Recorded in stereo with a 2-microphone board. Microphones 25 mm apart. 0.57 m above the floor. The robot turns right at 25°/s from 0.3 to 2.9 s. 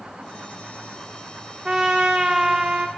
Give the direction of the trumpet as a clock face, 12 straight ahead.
4 o'clock.